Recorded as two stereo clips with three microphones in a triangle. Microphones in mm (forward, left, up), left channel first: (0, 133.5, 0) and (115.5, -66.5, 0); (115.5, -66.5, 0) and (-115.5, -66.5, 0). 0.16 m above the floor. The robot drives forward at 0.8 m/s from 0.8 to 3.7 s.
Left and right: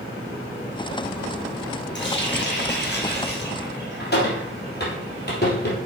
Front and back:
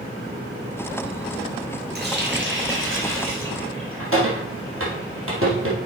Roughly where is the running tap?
Behind left.